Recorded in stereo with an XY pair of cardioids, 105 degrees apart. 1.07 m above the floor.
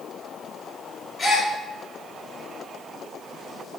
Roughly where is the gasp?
Ahead left.